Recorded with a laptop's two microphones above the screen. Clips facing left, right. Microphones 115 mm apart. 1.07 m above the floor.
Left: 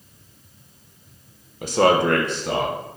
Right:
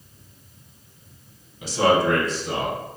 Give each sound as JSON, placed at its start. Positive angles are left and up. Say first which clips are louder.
{"t": 1.6, "sound": "a man speaking", "louder": "left 2 dB", "side_deg": 50, "distance_m": 0.5}